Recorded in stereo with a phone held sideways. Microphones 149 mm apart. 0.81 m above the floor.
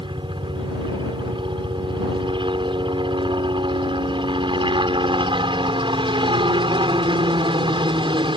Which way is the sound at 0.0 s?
35° right (ahead or behind).